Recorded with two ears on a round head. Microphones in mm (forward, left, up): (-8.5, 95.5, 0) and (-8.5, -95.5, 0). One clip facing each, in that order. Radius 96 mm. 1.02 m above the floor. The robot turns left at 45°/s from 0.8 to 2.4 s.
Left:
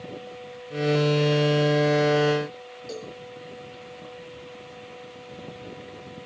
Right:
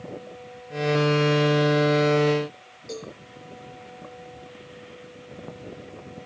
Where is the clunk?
I don't hear a clunk.